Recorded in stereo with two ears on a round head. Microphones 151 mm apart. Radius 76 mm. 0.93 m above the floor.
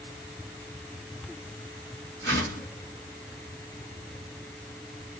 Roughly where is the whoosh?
Right.